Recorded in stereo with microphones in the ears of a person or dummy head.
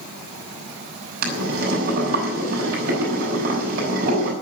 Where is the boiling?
55° right (ahead or behind), 6.5 m.